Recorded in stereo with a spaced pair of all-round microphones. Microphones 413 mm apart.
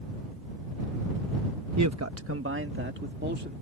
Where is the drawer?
I don't hear a drawer.